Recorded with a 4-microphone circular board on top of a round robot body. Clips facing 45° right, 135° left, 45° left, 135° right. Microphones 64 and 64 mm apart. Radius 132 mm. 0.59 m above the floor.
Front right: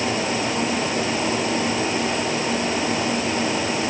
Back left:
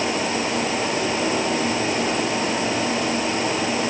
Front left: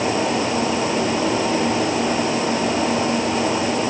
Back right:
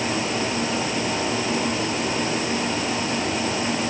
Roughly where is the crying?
I don't hear crying.